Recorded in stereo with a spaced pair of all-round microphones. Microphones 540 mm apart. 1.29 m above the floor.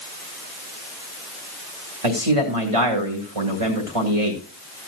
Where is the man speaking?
80° right, 2.0 m.